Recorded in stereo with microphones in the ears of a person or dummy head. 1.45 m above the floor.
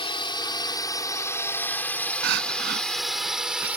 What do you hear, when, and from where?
0.0 s a drone: 25° left (ahead or behind); by 3.8 s 5° right (ahead or behind)
2.2 s crying: 60° right (ahead or behind)